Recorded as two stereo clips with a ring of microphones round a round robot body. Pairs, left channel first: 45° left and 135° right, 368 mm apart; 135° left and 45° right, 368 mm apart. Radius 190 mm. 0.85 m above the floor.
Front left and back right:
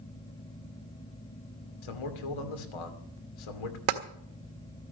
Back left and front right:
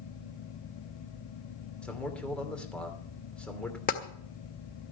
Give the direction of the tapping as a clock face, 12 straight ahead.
5 o'clock.